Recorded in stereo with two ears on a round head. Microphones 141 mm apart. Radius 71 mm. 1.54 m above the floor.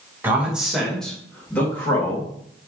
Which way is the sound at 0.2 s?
15° right (ahead or behind).